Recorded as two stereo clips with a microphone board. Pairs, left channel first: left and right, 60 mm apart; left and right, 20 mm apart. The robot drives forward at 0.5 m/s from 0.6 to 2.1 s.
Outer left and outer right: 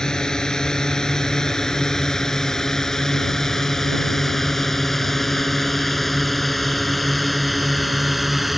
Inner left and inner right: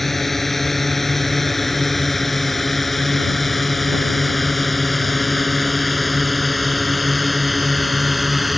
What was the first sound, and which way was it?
A drone, 10° left (ahead or behind).